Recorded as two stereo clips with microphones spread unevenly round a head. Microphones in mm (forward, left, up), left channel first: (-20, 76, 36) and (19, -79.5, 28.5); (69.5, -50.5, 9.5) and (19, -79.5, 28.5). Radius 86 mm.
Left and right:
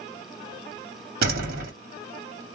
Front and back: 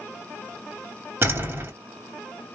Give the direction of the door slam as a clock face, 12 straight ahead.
4 o'clock.